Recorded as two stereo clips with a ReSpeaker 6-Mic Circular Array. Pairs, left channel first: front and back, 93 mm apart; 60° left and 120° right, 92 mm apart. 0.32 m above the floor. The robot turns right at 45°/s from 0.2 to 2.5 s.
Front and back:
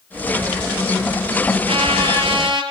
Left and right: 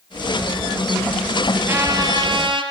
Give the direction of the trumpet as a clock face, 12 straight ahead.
6 o'clock.